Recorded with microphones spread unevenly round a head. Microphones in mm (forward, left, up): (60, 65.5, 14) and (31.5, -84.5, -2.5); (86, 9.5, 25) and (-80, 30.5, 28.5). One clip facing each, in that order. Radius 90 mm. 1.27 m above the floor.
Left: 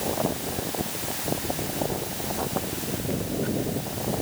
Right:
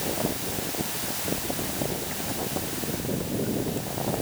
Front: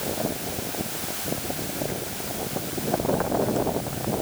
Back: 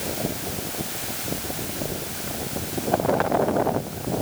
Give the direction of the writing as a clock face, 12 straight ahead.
I don't hear writing.